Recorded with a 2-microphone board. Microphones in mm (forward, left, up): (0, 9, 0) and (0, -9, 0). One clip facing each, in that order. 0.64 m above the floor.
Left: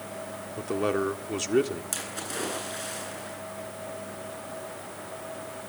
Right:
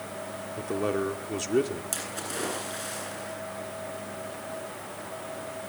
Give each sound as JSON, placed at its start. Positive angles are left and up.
{"t": 0.6, "sound": "a man speaking", "side_deg": 15, "distance_m": 1.7}
{"t": 1.9, "sound": "a splash", "side_deg": 0, "distance_m": 9.5}